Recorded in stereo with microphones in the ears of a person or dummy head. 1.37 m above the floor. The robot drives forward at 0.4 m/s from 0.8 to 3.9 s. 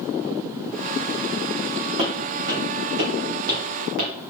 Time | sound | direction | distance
2.0 | footsteps | 40° right (ahead or behind) | 2.5 m